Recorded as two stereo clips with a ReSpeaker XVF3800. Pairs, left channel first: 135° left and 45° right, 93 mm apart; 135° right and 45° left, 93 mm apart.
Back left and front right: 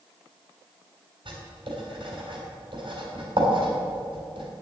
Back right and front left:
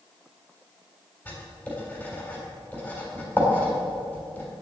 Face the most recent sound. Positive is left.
turn(degrees=-65)